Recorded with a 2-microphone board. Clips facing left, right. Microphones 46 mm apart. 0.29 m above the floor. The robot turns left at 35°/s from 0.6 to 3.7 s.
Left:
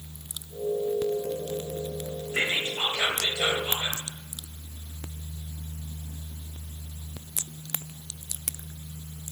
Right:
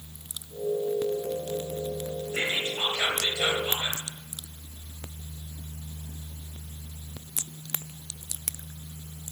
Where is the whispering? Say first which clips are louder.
Left 2 dB; 75° left, 1.0 m; by 4.0 s 25° left, 1.0 m.